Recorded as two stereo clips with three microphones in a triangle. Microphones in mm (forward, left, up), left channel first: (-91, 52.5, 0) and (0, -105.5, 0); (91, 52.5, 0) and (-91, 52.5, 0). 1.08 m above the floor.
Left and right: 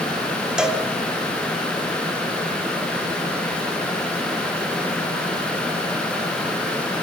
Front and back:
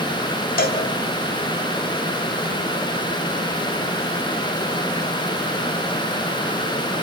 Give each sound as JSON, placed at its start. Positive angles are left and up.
{"t": 0.6, "sound": "a cowbell", "azimuth_deg": 25, "distance_m": 1.9}